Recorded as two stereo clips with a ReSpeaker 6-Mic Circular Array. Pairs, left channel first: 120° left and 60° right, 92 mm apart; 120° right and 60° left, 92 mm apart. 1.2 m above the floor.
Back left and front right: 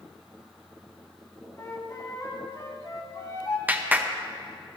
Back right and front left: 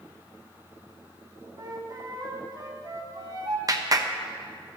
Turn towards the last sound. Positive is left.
turn(degrees=10)